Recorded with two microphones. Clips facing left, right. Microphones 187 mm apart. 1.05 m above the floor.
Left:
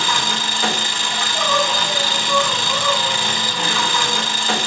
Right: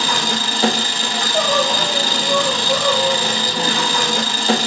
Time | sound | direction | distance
0.0 | an engine running | 35° right (ahead or behind) | 0.9 m
1.1 | crying | 65° right (ahead or behind) | 1.4 m